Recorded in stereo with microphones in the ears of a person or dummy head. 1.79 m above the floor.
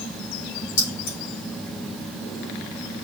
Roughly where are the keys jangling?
Left.